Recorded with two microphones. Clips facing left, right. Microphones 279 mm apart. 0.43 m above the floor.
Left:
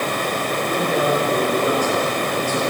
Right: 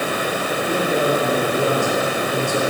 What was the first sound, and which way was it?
A man speaking, 25° right (ahead or behind).